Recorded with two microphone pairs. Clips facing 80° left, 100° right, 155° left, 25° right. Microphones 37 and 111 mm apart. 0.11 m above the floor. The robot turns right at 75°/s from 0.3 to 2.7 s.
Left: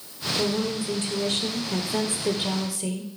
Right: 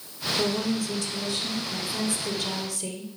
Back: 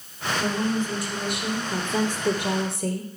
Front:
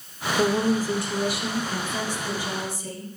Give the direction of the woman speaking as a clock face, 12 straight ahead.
12 o'clock.